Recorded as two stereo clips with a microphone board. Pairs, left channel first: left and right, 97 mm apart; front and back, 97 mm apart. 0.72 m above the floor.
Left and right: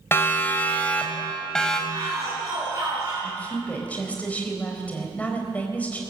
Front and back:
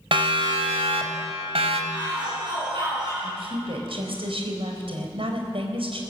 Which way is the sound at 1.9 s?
145° right.